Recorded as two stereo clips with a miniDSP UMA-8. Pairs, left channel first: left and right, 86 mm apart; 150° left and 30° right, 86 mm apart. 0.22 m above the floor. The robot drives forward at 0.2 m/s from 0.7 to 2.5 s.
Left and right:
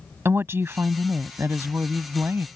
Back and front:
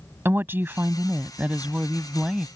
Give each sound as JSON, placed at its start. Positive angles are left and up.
{"t": 0.2, "sound": "a woman speaking", "azimuth_deg": -65}